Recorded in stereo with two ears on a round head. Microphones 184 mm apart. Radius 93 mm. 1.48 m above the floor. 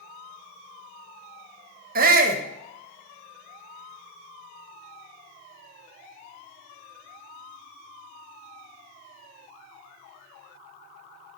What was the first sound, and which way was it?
A shout, 50° right (ahead or behind).